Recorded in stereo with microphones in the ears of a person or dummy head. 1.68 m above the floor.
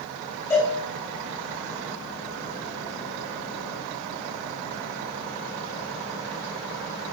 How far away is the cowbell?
About 9 m.